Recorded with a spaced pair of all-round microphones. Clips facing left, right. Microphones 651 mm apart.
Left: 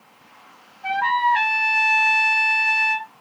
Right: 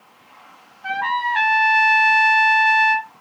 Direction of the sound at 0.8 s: 20° left (ahead or behind).